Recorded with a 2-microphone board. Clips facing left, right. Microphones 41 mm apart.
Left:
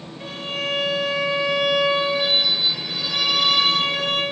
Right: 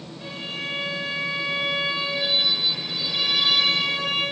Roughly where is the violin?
Left.